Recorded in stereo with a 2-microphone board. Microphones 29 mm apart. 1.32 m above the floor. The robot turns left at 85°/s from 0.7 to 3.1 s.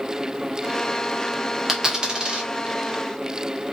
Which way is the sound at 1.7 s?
15° right (ahead or behind).